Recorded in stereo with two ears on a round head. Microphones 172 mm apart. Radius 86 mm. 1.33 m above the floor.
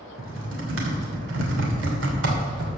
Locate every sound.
0.2 s typing on a keyboard: 75° right (ahead or behind), 2.5 m